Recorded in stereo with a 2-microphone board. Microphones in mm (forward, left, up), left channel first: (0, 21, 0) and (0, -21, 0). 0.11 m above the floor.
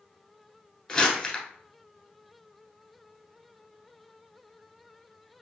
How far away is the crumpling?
About 1.1 m.